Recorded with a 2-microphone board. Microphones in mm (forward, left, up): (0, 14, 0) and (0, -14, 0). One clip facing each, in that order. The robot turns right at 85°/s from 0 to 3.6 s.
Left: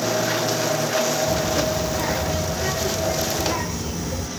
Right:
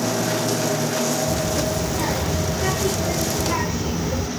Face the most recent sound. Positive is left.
turn(degrees=-15)  # may be behind; listen again after turning